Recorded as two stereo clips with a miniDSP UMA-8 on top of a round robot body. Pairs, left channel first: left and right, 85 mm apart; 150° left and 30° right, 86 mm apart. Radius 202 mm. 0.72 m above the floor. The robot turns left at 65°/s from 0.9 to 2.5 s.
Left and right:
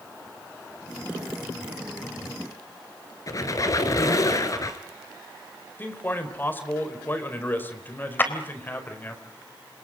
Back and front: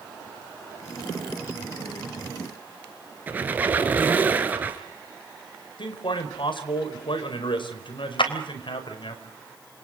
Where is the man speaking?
155° left, 4.5 m.